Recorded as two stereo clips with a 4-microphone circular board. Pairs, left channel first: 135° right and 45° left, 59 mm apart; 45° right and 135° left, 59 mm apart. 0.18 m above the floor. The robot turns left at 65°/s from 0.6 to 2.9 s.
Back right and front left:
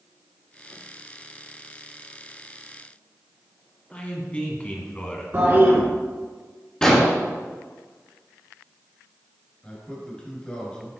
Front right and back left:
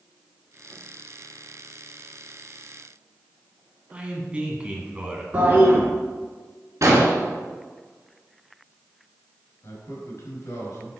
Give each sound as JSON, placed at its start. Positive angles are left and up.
{"t": 3.9, "sound": "a man speaking", "azimuth_deg": -175, "distance_m": 1.4}
{"t": 5.3, "sound": "a toilet flushing", "azimuth_deg": 80, "distance_m": 2.0}
{"t": 6.8, "sound": "an explosion", "azimuth_deg": 150, "distance_m": 1.9}
{"t": 9.6, "sound": "a man speaking", "azimuth_deg": -65, "distance_m": 2.5}